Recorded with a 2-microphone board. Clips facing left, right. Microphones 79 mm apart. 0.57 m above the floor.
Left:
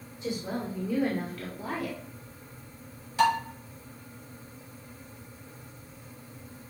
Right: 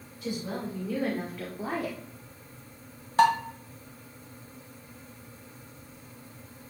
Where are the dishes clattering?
50° right (ahead or behind), 2.0 m.